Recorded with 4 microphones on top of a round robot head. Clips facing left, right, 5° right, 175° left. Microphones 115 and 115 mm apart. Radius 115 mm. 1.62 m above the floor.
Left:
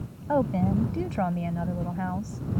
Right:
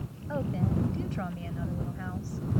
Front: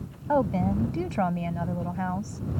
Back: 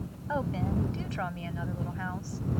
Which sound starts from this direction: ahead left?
A woman speaking, at 0.3 s.